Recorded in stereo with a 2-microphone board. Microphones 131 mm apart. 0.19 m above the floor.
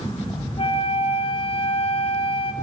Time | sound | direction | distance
0.6 | a flute | 45° left (ahead or behind) | 2.0 m